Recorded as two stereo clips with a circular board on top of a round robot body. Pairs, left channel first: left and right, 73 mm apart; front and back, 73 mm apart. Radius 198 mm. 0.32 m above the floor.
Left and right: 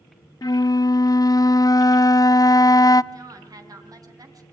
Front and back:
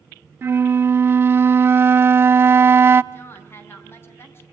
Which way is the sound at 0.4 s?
125° left.